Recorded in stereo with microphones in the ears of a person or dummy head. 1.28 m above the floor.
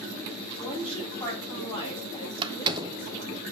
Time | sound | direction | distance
0.6 | a woman speaking | 30° left (ahead or behind) | 3.5 m
2.4 | a door slam | 25° right (ahead or behind) | 0.5 m